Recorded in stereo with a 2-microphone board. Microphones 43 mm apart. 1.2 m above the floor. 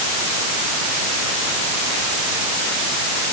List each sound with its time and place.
Only background noise.